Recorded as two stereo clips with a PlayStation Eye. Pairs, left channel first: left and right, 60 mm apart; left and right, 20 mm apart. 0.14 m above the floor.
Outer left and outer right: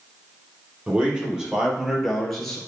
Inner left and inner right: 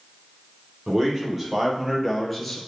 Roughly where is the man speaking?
Centre.